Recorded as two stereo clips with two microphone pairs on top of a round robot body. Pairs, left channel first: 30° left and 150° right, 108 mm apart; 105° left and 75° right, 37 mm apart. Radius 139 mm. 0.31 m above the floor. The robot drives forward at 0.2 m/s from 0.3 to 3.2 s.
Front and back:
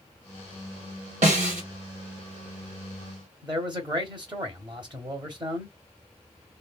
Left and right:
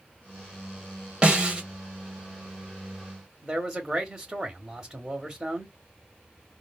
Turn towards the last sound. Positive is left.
turn(degrees=-140)